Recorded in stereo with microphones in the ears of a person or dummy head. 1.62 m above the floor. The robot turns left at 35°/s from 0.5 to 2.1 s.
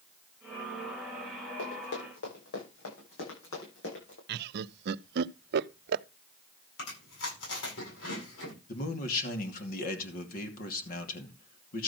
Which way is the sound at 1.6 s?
80° left.